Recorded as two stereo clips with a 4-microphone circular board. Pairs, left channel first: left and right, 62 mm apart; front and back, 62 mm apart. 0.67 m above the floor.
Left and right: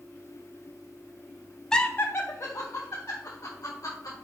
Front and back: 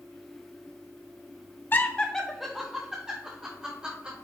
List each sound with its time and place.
1.7 s laughter: 20° left, 0.6 m; by 4.1 s 115° left, 2.5 m